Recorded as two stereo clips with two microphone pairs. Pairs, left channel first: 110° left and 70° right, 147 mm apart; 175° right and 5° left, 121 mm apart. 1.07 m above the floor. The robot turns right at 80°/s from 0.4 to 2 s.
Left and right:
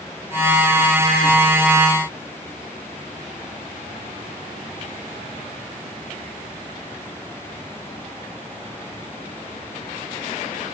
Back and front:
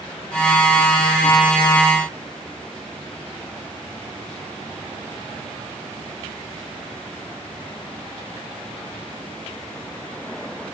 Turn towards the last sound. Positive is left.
No sound to turn to.